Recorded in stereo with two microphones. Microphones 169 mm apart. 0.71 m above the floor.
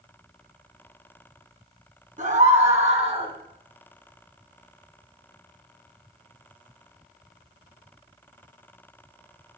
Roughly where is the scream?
Right.